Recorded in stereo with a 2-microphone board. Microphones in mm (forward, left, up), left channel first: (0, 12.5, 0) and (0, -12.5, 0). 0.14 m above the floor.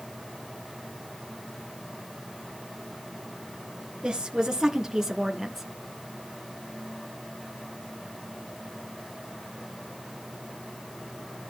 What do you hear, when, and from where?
4.0 s a woman speaking: 30° right (ahead or behind), 2.5 m; by 5.7 s 5° right (ahead or behind), 1.9 m